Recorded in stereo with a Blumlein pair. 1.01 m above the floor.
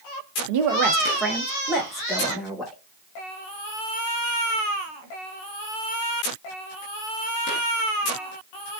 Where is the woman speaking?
55° right, 0.7 m; by 2.8 s 5° left, 2 m.